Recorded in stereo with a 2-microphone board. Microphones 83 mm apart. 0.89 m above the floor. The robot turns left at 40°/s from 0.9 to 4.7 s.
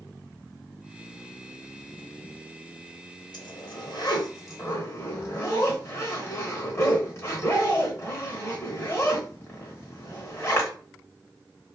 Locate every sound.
3.3 s a zipper: 60° left (ahead or behind), 0.9 m; by 10.7 s 30° left (ahead or behind), 0.9 m